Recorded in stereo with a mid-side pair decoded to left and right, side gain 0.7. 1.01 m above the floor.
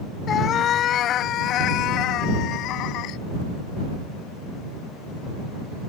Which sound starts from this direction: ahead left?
A cat meowing, at 0.3 s.